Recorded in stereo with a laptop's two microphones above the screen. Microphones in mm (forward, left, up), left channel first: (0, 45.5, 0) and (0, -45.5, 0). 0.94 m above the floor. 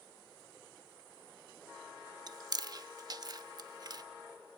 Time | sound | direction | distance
2.3 | chewing | 45° right (ahead or behind) | 0.7 m